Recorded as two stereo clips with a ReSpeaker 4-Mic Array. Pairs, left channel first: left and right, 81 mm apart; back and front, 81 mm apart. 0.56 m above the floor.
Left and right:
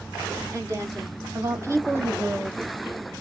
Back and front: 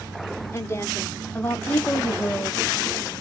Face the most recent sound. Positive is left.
turn(degrees=-95)